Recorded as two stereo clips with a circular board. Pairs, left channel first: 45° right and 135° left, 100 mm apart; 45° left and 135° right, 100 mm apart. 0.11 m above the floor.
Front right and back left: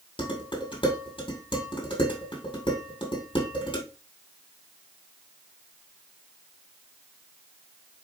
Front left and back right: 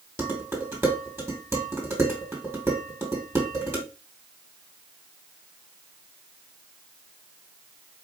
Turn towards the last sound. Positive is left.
turn(degrees=-70)